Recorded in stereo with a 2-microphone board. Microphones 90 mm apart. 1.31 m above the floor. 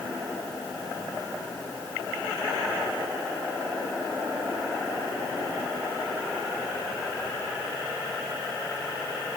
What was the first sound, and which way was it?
Only background noise.